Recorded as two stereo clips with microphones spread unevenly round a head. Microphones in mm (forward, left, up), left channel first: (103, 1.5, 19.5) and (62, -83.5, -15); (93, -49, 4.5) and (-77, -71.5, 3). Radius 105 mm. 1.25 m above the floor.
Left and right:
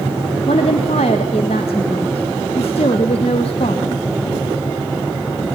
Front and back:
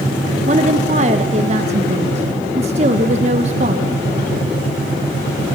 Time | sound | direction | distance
0.5 | a woman speaking | 130° left | 1.5 m